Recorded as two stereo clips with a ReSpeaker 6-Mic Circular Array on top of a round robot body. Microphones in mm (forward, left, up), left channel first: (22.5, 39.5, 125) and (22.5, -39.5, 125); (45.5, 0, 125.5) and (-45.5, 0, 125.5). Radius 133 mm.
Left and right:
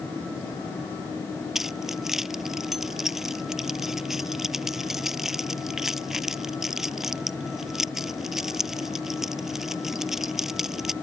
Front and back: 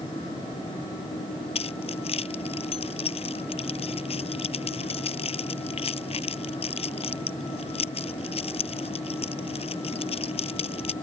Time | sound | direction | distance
1.6 | keys jangling | 5° right | ?